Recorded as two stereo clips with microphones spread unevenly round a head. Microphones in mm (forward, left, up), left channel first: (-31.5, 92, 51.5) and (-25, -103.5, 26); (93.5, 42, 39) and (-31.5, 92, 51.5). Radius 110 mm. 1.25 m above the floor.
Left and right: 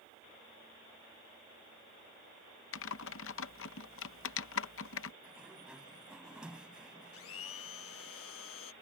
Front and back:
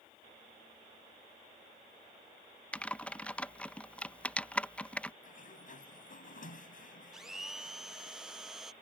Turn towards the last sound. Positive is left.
turn(degrees=70)